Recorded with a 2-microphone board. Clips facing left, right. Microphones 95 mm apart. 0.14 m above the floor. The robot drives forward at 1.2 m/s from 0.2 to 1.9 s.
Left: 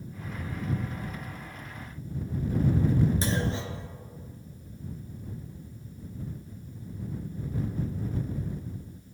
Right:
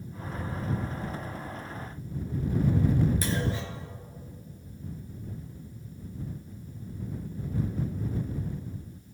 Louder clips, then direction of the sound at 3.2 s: Left 1 dB; 25° left (ahead or behind).